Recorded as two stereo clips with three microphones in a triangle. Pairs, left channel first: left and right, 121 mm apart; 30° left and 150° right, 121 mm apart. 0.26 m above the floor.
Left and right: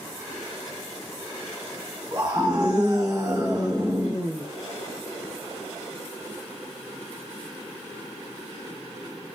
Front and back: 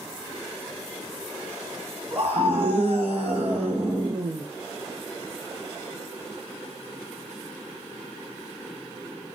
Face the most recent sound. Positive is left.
turn(degrees=-135)